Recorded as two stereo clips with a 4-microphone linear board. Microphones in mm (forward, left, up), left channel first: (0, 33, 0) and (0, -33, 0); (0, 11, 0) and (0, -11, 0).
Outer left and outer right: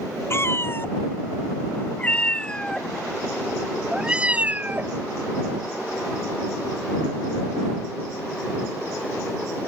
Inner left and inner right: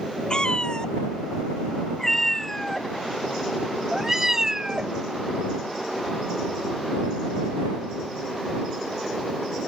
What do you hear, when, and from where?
0.3 s a cat meowing: 40° left (ahead or behind); by 5.0 s 30° right (ahead or behind)